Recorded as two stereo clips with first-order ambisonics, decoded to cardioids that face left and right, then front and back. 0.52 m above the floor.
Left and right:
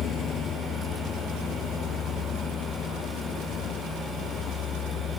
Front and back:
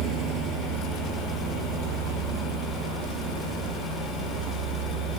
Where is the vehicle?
140° left.